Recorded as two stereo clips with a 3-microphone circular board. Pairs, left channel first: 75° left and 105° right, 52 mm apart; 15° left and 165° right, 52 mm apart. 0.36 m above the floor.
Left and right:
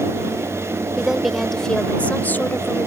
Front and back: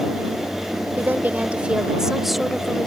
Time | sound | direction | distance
1.0 | a woman speaking | 175° right | ?